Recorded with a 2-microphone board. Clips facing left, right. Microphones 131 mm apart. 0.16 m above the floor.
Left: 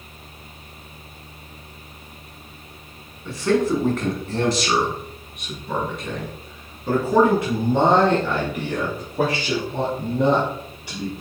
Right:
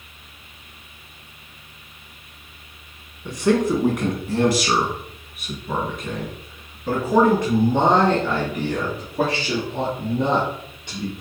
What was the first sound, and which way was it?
A man speaking, 20° right (ahead or behind).